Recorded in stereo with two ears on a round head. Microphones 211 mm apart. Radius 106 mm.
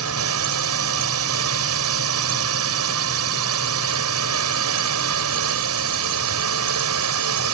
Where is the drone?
65° right (ahead or behind).